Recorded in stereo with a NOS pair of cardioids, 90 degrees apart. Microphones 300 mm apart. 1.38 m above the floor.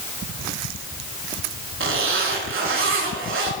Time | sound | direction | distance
1.8 | a zipper | 45° right | 4.5 m